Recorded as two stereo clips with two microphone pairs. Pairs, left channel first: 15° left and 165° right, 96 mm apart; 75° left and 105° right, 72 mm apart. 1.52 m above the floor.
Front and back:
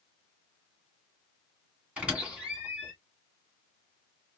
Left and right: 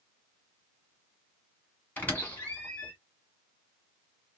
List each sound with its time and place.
2.0 s a squeak: 125° left, 1.8 m